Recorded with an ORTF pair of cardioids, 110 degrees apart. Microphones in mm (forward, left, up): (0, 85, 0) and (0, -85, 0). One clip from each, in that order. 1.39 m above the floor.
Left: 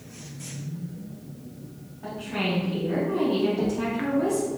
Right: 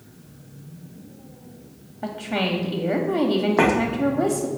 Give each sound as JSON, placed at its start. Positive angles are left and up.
{"t": 2.0, "sound": "a woman speaking", "azimuth_deg": -70, "distance_m": 0.6}